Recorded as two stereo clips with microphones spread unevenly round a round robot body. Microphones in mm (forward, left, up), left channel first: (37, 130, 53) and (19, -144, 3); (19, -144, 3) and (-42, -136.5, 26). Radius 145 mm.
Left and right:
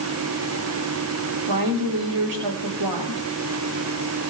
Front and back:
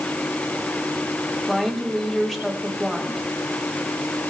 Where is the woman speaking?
95° right, 6 m.